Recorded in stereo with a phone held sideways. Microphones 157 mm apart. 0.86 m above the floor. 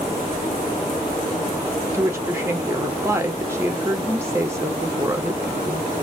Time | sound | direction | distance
1.9 | a woman speaking | 15° right (ahead or behind) | 1.4 m